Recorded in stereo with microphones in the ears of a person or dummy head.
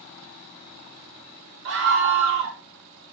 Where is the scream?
60° right (ahead or behind), 0.9 m.